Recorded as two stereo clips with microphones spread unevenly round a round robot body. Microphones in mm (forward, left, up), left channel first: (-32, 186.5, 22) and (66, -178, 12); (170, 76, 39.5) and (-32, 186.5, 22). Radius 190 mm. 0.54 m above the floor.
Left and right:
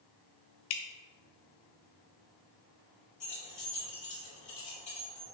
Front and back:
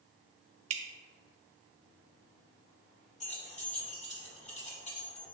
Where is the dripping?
135° left, 0.9 m.